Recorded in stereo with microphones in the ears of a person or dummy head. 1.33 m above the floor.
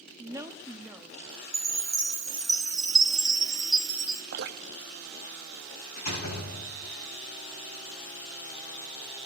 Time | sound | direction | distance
0.2 | a woman speaking | 15° right (ahead or behind) | 0.6 m
1.5 | a chime | 5° right (ahead or behind) | 1.0 m
4.3 | dripping | 50° right (ahead or behind) | 0.5 m
6.0 | a door slam | 45° left (ahead or behind) | 7.5 m